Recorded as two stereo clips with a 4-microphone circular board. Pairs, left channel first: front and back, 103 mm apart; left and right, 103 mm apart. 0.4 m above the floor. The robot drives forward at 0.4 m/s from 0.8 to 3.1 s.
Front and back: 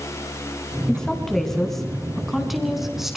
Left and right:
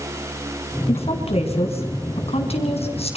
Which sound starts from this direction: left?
A woman speaking, at 0.9 s.